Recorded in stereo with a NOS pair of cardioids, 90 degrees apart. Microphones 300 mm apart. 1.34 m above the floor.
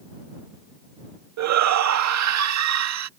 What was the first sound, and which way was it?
A shout, 65° right.